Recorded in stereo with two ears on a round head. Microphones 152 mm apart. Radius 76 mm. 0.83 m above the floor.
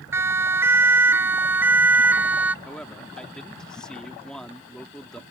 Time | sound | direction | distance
0.1 | a siren | 15° right (ahead or behind) | ?
2.6 | a man speaking | 5° left (ahead or behind) | ?